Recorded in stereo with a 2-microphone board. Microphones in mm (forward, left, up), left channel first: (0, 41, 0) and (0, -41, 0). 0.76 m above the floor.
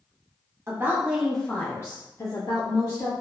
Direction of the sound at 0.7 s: 30° right (ahead or behind).